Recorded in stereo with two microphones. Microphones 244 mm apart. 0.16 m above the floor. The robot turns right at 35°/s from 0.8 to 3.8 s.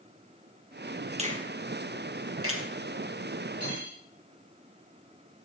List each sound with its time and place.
1.2 s a finger snap: 25° right (ahead or behind), 3 m; by 2.6 s 65° right (ahead or behind), 3 m
3.6 s cutlery clinking: 75° right (ahead or behind), 8 m; by 4.0 s 70° right (ahead or behind), 8 m